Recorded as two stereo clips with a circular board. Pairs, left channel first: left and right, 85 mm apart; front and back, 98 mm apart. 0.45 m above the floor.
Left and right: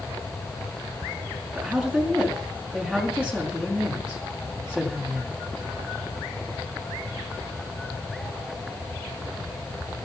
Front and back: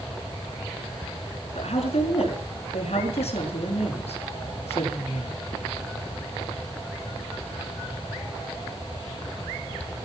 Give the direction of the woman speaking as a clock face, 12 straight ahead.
12 o'clock.